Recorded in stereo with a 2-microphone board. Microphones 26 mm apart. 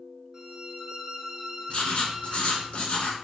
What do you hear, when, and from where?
0.3 s a violin: 25° right (ahead or behind), 0.6 m
1.7 s writing: 55° left (ahead or behind), 0.7 m